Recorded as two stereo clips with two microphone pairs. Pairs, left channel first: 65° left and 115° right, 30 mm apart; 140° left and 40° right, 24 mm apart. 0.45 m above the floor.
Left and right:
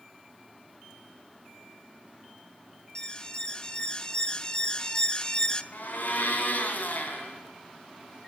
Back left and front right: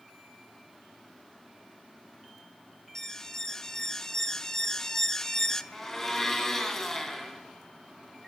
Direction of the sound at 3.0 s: 100° left.